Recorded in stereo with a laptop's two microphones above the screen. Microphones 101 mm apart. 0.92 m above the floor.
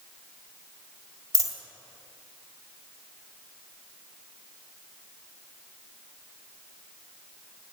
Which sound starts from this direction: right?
A dropped coin, at 1.3 s.